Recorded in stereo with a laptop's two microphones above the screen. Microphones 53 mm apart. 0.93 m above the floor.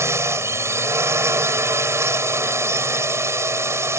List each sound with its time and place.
0.0 s a drone: 60° right (ahead or behind)